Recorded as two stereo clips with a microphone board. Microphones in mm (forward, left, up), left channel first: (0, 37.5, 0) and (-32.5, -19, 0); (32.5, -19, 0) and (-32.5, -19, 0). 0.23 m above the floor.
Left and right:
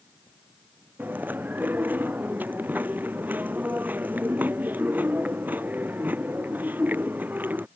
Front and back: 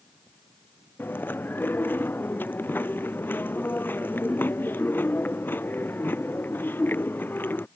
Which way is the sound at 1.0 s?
60° right.